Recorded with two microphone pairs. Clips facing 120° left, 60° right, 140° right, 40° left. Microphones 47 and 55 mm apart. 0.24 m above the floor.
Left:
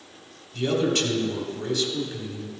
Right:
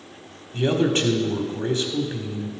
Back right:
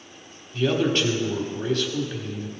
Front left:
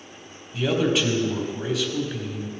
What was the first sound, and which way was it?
A man speaking, 45° right.